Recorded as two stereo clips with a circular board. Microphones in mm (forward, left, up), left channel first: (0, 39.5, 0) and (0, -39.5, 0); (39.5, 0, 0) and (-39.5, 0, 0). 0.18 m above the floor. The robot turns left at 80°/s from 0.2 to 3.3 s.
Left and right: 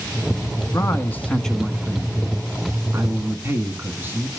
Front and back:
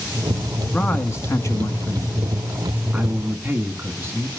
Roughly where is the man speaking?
Left.